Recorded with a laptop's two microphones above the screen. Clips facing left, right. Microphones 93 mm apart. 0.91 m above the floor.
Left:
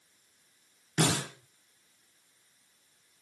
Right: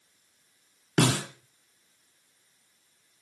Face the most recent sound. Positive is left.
turn(degrees=-80)